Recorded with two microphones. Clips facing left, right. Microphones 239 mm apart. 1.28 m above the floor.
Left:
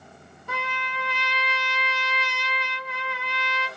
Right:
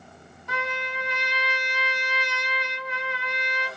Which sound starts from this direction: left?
A trumpet, at 0.5 s.